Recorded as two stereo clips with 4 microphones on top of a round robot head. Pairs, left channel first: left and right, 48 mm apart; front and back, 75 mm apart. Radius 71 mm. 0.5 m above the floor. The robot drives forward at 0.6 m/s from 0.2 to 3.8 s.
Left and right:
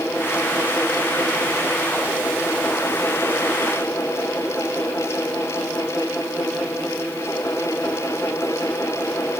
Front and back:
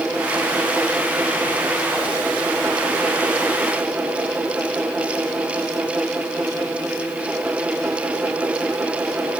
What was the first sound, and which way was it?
Only background noise.